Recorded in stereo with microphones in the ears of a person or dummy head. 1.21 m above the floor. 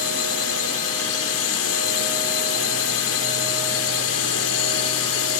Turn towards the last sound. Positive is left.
turn(degrees=70)  # may be behind; listen again after turning